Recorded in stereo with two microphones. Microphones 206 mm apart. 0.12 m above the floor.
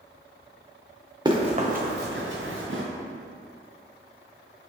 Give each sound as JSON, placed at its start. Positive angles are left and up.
{"t": 1.2, "sound": "running footsteps", "side_deg": -20, "distance_m": 0.8}